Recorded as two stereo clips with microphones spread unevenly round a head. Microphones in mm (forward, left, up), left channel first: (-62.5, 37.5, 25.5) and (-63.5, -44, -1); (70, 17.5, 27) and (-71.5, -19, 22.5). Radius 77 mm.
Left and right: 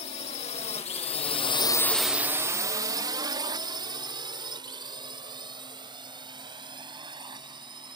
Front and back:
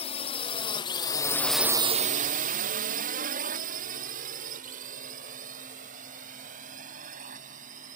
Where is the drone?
65° left; by 8.0 s 125° right.